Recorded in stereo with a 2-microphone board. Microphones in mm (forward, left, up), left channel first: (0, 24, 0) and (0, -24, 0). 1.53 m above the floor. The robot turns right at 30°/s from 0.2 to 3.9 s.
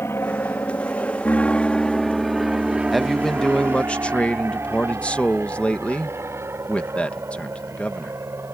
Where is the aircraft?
60° left (ahead or behind); by 8.5 s 70° right (ahead or behind).